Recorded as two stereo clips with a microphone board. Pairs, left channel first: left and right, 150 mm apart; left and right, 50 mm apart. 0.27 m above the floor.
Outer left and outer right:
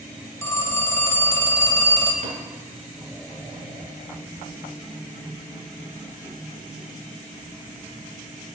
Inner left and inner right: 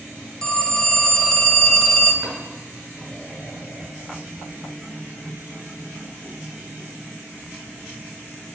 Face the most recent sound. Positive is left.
turn(degrees=-60)  # may be behind; listen again after turning